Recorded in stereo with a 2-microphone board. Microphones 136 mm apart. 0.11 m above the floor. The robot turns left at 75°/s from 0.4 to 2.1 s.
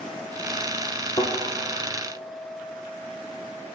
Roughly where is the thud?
Left.